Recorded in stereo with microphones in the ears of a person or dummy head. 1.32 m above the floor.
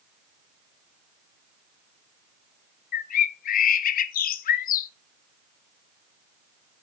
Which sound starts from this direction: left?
A bird, at 2.9 s.